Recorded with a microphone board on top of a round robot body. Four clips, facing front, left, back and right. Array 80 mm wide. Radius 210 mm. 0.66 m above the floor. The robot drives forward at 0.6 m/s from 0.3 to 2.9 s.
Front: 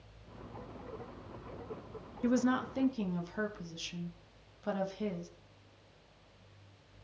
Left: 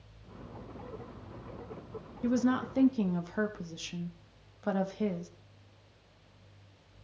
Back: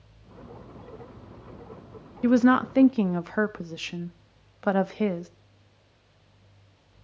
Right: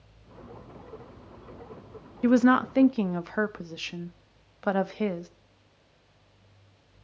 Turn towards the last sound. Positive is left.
turn(degrees=-145)